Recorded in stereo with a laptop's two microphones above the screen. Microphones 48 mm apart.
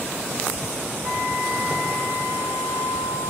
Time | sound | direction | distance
1.0 | a flute | 25° right (ahead or behind) | 1.3 m